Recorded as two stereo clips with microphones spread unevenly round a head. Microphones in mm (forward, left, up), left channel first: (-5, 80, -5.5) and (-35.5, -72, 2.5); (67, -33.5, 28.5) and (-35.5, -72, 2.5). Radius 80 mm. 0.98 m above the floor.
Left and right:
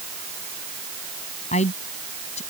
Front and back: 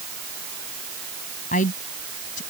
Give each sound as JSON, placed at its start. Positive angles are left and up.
{"t": 1.5, "sound": "a woman speaking", "azimuth_deg": 25}